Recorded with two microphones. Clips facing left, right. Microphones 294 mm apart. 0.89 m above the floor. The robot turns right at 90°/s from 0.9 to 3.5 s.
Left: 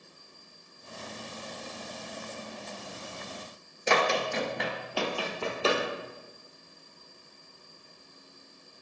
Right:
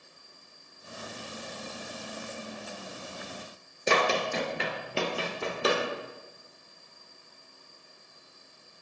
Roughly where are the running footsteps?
Right.